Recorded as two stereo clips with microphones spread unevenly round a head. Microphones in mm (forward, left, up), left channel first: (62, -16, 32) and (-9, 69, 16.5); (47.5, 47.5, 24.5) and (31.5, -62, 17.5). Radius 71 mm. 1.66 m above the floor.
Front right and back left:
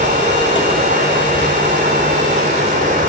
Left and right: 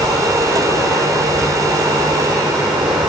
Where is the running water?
170° left, 3.5 m.